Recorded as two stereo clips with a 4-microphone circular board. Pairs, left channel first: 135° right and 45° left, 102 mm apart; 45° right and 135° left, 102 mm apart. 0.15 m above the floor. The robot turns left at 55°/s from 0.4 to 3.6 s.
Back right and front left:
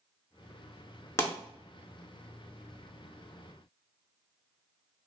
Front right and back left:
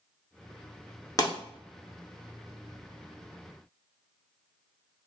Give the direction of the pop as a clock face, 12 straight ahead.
3 o'clock.